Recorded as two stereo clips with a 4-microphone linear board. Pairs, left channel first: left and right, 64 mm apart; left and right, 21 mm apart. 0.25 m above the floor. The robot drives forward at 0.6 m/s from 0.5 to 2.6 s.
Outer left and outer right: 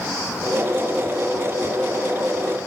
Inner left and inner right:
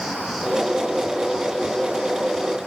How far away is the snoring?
I don't hear snoring.